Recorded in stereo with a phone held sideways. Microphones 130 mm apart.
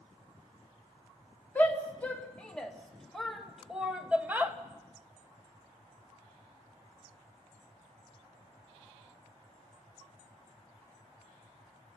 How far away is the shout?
About 3 m.